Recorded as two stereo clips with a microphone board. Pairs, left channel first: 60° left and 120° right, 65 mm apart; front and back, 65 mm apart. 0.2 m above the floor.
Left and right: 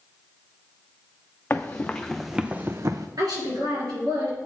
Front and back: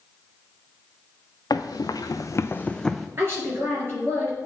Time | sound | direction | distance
1.5 | running footsteps | 5° left | 0.8 m
3.2 | a woman speaking | 130° right | 3.5 m